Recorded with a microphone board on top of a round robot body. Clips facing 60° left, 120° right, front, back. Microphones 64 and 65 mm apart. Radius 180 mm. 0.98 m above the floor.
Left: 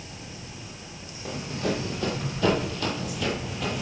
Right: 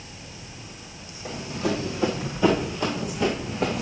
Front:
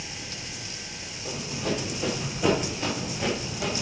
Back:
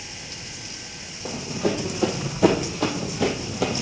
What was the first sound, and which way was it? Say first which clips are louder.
Running footsteps: right 2 dB, back 5 dB; 155° left.